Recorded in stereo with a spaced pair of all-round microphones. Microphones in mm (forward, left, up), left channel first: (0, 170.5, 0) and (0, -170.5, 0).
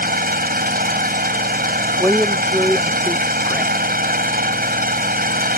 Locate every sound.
0.0 s an engine running: 25° right (ahead or behind)
2.0 s a woman speaking: centre (ahead or behind)